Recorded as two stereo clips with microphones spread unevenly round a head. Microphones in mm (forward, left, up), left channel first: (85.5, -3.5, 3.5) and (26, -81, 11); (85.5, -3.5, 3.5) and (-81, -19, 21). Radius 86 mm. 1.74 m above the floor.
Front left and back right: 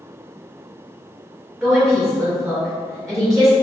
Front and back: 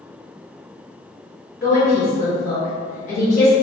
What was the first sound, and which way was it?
A woman speaking, 40° right.